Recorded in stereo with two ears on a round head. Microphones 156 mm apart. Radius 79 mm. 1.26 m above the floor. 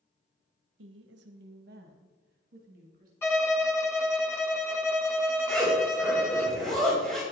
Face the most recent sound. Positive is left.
turn(degrees=5)  # may be behind; listen again after turning